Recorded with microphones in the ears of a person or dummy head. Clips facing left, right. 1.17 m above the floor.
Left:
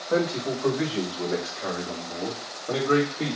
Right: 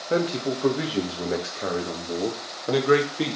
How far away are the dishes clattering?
I don't hear dishes clattering.